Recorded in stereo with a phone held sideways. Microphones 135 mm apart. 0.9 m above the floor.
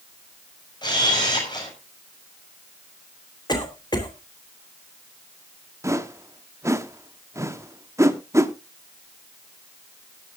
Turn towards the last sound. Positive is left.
turn(degrees=-20)  # may be behind; listen again after turning